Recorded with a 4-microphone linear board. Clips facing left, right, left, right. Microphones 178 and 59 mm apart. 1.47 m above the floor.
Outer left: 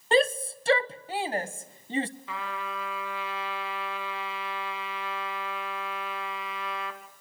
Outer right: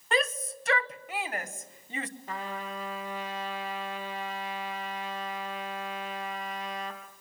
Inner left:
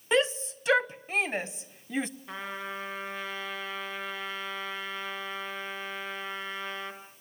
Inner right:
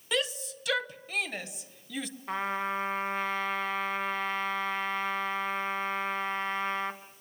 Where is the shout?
30° left (ahead or behind), 0.8 m.